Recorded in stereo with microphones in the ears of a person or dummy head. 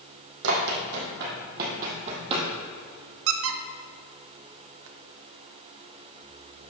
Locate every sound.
0.4 s running footsteps: 65° right (ahead or behind), 3.5 m; by 2.5 s 25° right (ahead or behind), 2.5 m
3.3 s a squeak: 70° right (ahead or behind), 0.9 m